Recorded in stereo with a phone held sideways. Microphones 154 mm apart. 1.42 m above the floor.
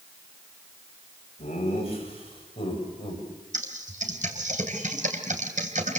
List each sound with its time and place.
1.4 s laughter: 50° left (ahead or behind), 9 m; by 3.2 s 35° left (ahead or behind), 8.5 m
3.5 s typing on a keyboard: 60° right (ahead or behind), 3 m